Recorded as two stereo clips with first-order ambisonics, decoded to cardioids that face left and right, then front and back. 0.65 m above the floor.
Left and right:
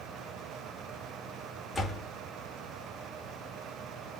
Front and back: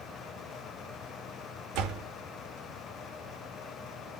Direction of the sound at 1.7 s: 175° left.